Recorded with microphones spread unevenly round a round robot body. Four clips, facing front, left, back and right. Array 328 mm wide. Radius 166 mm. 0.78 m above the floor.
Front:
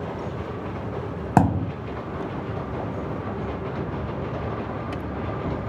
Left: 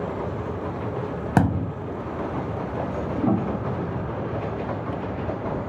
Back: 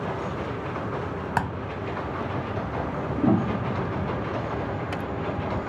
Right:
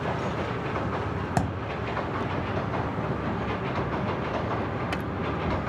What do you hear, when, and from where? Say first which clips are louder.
1.4 s a thud: left 9 dB, front 10 dB; 45° left
3.2 s a piano: left 6 dB, back 7 dB; 145° left